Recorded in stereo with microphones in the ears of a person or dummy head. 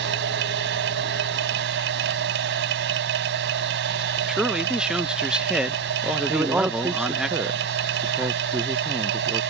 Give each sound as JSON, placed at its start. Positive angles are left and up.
{"t": 0.0, "sound": "a machine running", "side_deg": -70}
{"t": 4.3, "sound": "a man speaking", "side_deg": -10}
{"t": 6.3, "sound": "a man speaking", "side_deg": -10}